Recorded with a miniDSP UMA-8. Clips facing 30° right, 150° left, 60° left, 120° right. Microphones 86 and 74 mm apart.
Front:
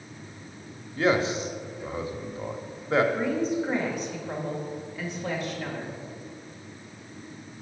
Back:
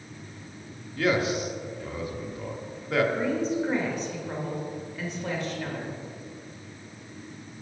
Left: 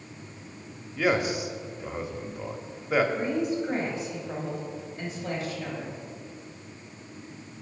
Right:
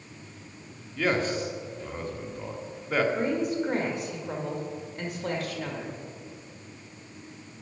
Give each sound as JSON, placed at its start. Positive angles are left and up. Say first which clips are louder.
{"t": 1.0, "sound": "a man speaking", "louder": "front 1 dB, left 1 dB", "azimuth_deg": -10, "distance_m": 0.9}
{"t": 3.1, "sound": "a woman speaking", "louder": "even, even", "azimuth_deg": -115, "distance_m": 2.0}